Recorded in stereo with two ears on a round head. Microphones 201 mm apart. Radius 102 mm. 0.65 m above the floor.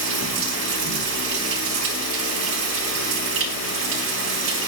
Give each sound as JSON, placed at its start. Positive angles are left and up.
{"t": 0.0, "sound": "running water", "side_deg": -70, "distance_m": 3.5}